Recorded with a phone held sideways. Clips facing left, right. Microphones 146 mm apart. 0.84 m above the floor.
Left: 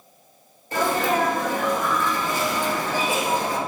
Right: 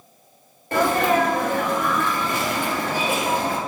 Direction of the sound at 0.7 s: 60° right (ahead or behind).